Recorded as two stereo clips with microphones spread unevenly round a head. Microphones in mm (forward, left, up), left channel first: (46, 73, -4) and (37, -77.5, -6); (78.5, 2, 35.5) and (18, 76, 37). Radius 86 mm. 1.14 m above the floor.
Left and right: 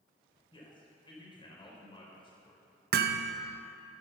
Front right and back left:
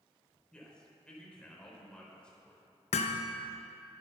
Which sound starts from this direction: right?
Hammering, at 2.9 s.